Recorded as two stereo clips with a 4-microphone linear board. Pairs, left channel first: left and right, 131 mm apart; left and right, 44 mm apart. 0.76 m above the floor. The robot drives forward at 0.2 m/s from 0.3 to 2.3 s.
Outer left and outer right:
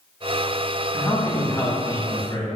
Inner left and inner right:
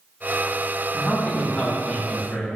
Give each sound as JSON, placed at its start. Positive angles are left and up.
{"t": 0.9, "sound": "a man speaking", "side_deg": 25, "distance_m": 1.0}